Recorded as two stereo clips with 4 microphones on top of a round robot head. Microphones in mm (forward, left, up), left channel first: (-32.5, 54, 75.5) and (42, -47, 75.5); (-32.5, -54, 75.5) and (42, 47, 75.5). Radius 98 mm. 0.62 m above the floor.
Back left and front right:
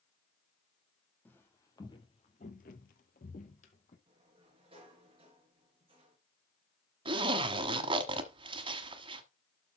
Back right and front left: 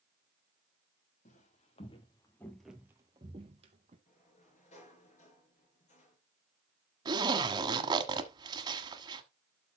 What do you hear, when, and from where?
1.2 s footsteps: 155° right, 1.8 m; by 4.0 s 90° left, 2.0 m
4.1 s a sliding door: 100° right, 4 m
7.0 s a zipper: 5° right, 1.2 m